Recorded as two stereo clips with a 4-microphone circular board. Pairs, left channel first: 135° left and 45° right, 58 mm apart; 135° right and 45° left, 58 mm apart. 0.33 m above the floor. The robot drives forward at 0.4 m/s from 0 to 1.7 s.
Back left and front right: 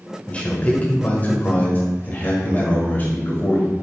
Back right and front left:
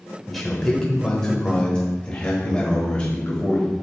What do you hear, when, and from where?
0.3 s a man speaking: 140° left, 1.3 m; by 3.7 s 160° left, 1.5 m